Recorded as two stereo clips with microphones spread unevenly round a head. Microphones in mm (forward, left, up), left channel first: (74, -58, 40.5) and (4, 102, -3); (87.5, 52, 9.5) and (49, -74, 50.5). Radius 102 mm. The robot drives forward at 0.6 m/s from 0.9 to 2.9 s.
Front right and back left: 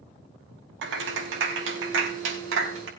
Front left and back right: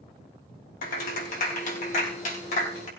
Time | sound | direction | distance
0.8 | a clap | 105° left | 4.5 m